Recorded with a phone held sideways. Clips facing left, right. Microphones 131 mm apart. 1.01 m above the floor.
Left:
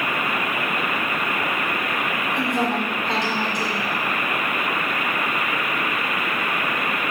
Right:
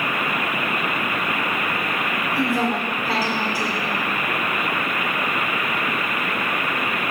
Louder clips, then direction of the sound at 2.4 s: Right 1 dB; 5° right (ahead or behind).